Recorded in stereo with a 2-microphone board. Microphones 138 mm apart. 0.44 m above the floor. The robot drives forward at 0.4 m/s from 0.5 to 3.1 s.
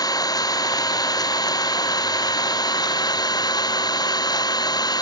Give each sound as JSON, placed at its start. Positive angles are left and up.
{"t": 0.0, "sound": "an engine running", "side_deg": 25}